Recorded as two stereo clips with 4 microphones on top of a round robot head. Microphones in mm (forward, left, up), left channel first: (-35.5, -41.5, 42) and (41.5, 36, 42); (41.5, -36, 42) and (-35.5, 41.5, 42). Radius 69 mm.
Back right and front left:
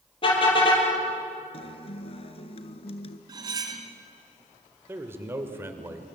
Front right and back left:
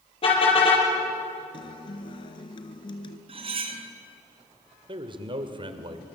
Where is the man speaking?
110° left, 1.8 m.